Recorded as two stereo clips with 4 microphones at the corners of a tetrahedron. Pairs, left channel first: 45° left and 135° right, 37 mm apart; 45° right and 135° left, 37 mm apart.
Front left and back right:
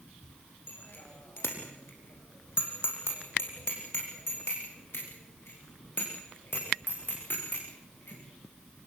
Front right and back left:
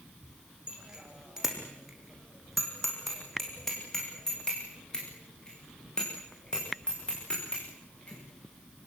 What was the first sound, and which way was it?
A bicycle bell, 70° left.